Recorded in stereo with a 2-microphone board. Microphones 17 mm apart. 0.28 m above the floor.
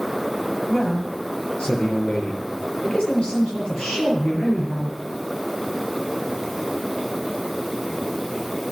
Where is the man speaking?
80° left, 7 m.